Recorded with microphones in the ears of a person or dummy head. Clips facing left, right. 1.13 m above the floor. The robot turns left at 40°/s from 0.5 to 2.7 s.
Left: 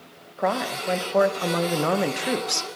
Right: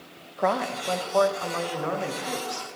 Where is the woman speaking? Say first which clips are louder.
Even; 175° right, 0.6 m; by 2.7 s 95° left, 0.6 m.